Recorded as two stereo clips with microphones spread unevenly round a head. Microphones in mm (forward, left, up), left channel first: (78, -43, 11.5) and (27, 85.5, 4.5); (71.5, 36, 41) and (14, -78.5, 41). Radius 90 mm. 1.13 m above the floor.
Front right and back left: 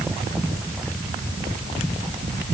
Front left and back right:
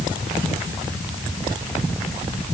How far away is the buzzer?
No buzzer in this recording.